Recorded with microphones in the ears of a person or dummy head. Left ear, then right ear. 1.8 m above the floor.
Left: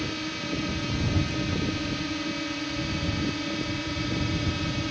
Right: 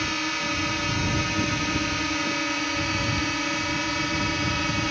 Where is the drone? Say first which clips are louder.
Right 6 dB; 50° right (ahead or behind).